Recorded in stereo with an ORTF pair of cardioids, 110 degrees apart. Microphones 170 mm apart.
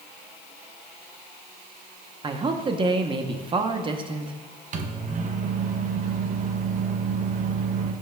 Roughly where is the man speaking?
Ahead right.